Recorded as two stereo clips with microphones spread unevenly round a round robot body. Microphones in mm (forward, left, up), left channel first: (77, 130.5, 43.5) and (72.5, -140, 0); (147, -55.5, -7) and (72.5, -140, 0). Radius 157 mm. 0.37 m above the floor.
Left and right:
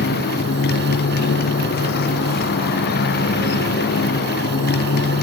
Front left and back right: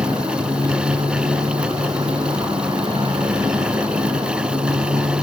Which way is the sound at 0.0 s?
150° left.